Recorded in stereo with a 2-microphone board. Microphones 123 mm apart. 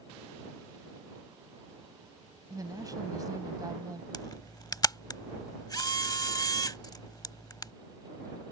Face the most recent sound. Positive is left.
turn(degrees=30)  # may be behind; listen again after turning